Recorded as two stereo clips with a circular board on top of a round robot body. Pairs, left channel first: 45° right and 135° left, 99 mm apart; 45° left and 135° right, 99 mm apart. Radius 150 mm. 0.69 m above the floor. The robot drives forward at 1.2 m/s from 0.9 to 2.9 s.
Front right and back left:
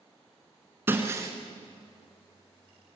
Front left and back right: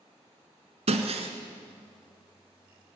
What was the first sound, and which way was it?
Breaking glass, 155° right.